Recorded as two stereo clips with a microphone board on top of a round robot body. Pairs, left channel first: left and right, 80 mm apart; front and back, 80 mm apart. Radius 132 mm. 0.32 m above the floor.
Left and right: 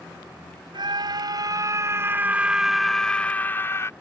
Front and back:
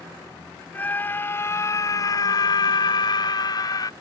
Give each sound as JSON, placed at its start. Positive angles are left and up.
{"t": 0.7, "sound": "a scream", "azimuth_deg": -70}